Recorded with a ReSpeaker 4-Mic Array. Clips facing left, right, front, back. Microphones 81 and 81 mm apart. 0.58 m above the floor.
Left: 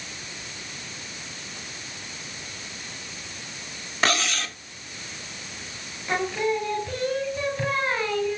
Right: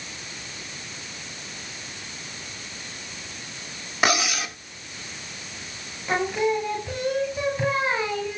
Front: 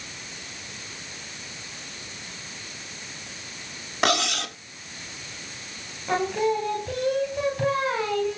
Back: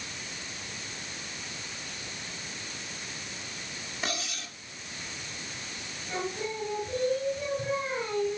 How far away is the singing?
About 2.5 m.